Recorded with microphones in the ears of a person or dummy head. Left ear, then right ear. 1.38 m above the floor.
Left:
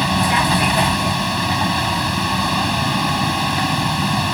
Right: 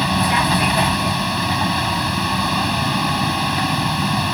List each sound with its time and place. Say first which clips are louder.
0.0 s a vehicle: left 1 dB; centre (ahead or behind)